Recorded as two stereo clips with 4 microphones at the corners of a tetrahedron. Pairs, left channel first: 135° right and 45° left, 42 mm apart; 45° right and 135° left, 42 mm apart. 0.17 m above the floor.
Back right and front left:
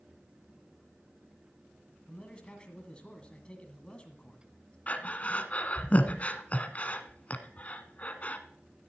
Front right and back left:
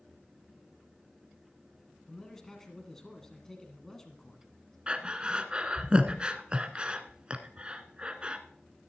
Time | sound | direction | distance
2.1 | a man speaking | 110° right | 1.8 m
4.9 | breathing | 170° right | 1.1 m